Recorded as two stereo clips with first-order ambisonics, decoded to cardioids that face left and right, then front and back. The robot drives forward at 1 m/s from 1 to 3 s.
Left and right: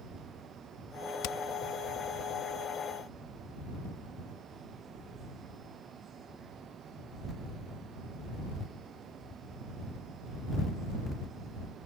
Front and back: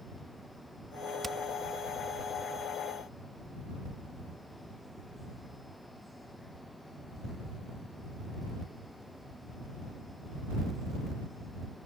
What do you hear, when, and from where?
1.2 s hammering: 100° left; by 1.4 s 105° left